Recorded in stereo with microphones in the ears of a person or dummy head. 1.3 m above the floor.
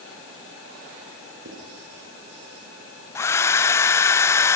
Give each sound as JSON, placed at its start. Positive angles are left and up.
{"t": 1.4, "sound": "writing", "side_deg": -65, "distance_m": 9.5}
{"t": 3.1, "sound": "a hair dryer", "side_deg": 15, "distance_m": 0.7}